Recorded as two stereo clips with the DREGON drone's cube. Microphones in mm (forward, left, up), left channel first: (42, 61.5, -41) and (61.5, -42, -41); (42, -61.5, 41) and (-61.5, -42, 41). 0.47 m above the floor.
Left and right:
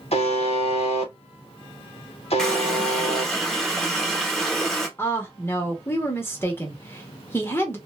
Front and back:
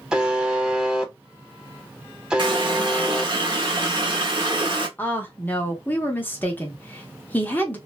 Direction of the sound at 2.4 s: 175° right.